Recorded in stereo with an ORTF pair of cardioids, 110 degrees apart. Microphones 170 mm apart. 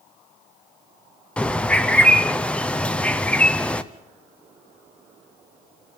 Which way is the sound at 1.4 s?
5° left.